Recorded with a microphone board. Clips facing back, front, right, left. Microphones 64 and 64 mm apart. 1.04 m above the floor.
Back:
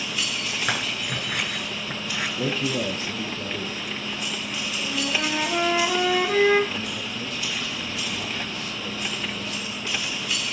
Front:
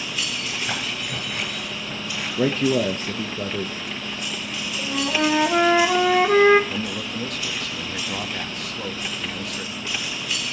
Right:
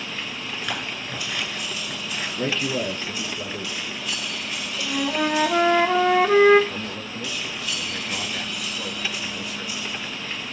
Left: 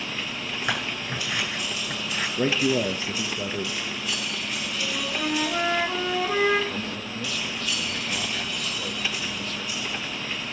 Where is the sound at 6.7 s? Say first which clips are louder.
Front 3 dB, even; 10° right, 1.6 m.